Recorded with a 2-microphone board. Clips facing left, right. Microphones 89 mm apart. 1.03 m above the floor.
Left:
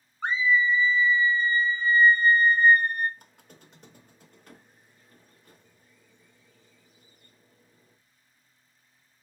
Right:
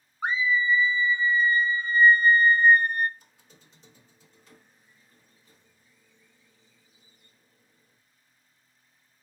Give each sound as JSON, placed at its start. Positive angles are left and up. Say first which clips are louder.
{"t": 0.2, "sound": "a scream", "louder": "left 1 dB", "side_deg": -10, "distance_m": 0.9}
{"t": 3.2, "sound": "a squeak", "louder": "left 5 dB", "side_deg": 55, "distance_m": 0.7}